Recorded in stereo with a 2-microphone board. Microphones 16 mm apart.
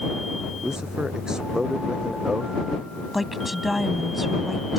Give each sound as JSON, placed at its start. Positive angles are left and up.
{"t": 0.6, "sound": "a man speaking", "side_deg": -55}
{"t": 3.1, "sound": "a woman speaking", "side_deg": -5}